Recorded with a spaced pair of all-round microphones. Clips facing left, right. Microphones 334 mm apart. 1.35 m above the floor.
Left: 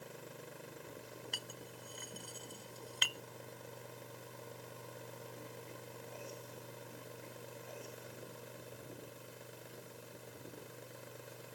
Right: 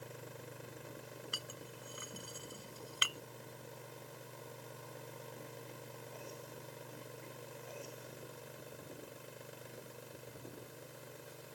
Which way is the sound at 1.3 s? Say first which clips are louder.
Even; 10° right (ahead or behind).